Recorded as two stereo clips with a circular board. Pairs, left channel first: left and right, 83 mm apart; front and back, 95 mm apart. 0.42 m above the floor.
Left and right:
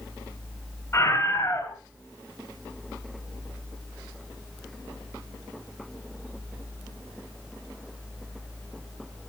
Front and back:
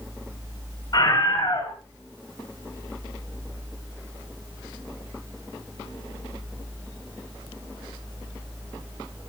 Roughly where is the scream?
Ahead left.